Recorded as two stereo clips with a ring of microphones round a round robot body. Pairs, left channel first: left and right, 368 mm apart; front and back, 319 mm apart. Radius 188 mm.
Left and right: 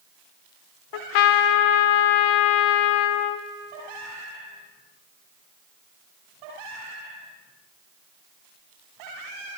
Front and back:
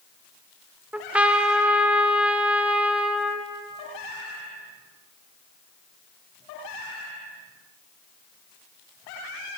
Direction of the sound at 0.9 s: 95° left.